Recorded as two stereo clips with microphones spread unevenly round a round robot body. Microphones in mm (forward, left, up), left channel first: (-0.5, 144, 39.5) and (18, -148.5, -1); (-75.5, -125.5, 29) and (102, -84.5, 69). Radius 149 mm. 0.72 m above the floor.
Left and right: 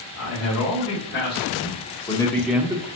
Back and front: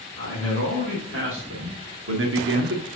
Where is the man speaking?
50° left, 2.5 m; by 2.9 s 15° right, 1.3 m.